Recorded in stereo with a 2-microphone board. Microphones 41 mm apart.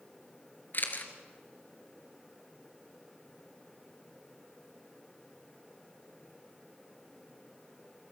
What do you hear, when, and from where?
0.7 s a camera shutter: 45° left (ahead or behind), 2 m